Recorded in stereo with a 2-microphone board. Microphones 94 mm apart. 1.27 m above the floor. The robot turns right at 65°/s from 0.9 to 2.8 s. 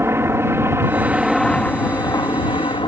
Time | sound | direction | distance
0.0 | a helicopter | 30° right | ?